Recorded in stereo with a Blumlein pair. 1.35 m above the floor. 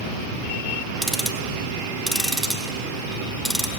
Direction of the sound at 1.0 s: 5° right.